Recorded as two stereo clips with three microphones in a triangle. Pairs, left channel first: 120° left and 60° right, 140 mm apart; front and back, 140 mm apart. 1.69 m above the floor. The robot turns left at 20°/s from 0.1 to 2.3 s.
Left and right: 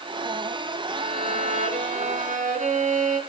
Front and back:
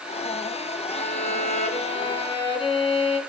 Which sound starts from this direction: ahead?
A violin, at 0.9 s.